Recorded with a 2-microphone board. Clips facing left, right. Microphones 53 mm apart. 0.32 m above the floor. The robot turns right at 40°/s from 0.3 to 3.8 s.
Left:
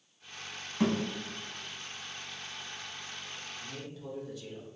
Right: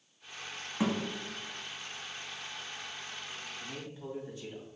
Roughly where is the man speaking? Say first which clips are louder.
Even; right.